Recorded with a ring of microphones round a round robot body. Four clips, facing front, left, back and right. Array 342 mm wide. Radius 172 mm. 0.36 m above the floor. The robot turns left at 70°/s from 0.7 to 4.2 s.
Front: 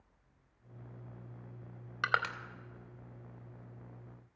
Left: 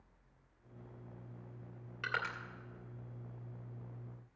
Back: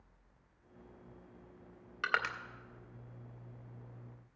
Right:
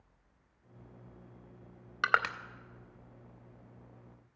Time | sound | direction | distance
2.0 | crushing | 65° right | 0.5 m